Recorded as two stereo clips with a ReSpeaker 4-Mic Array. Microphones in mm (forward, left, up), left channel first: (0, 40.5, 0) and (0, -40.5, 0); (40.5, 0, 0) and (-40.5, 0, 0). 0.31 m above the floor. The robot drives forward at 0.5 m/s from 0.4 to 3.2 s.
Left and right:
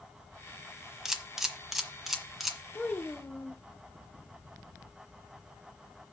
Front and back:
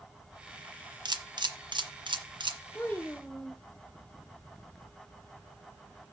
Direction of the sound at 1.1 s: 175° right.